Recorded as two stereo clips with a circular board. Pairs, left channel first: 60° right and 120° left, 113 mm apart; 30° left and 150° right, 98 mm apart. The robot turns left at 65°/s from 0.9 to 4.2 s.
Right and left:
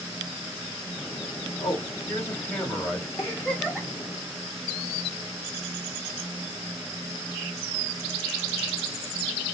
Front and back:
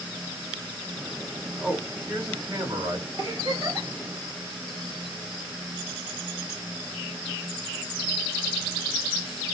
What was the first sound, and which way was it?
A man speaking, 75° right.